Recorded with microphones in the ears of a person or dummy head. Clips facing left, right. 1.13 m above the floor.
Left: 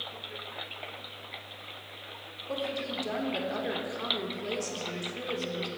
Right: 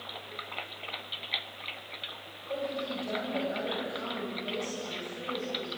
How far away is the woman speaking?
About 3.5 m.